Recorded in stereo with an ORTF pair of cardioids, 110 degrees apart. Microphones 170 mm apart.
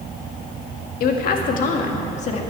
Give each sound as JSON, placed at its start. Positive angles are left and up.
{"t": 1.0, "sound": "a woman speaking", "azimuth_deg": 65, "distance_m": 1.8}